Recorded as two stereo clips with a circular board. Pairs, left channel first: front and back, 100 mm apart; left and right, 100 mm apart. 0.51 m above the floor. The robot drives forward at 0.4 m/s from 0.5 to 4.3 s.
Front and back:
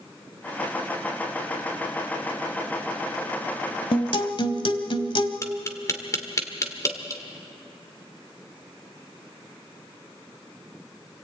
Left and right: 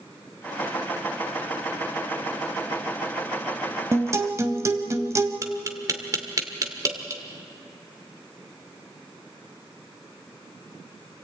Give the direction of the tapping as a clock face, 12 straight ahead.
2 o'clock.